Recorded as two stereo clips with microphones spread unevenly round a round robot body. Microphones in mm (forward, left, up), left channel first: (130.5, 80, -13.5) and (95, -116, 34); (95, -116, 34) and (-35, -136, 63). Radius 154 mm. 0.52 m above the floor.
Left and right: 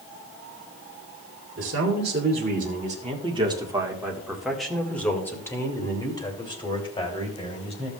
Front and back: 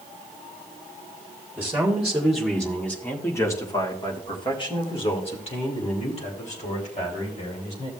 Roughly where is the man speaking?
Right.